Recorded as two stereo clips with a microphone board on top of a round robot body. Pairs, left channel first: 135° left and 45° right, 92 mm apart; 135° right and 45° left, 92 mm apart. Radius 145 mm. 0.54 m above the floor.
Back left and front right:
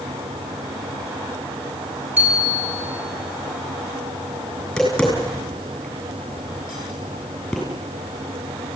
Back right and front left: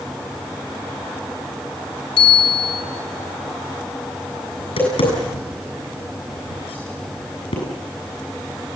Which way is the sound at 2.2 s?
120° right.